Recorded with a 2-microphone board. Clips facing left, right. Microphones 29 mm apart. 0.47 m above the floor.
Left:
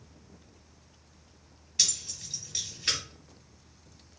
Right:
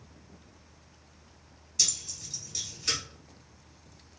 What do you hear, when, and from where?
1.8 s keys jangling: 30° left (ahead or behind), 1.0 m